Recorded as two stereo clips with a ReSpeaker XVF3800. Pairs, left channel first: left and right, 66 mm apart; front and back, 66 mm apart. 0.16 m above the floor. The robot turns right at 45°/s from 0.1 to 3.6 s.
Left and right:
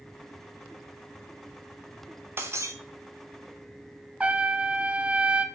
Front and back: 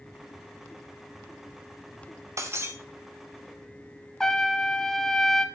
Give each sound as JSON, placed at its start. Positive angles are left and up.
{"t": 2.4, "sound": "breaking glass", "azimuth_deg": -140, "distance_m": 2.0}
{"t": 4.2, "sound": "a trumpet", "azimuth_deg": -65, "distance_m": 1.1}